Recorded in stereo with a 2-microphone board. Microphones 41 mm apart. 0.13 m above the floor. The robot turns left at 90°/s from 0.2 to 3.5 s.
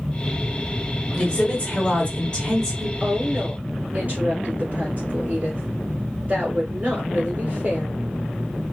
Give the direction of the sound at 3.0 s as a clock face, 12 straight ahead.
1 o'clock.